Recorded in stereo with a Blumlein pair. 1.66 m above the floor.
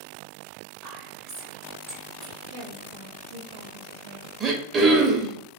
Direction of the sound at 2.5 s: 60° right.